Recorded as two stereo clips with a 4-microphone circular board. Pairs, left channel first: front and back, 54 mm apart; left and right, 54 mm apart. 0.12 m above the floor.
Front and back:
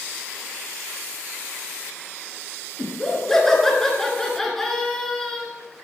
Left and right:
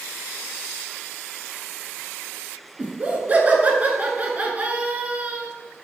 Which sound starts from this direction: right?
Laughter, at 2.8 s.